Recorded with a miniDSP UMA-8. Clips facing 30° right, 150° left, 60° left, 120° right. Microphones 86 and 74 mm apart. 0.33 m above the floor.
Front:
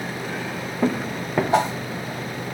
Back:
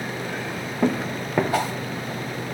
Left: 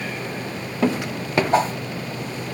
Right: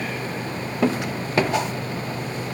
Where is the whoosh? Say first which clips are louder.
Front 4 dB, left 5 dB; 25° left, 1.7 m.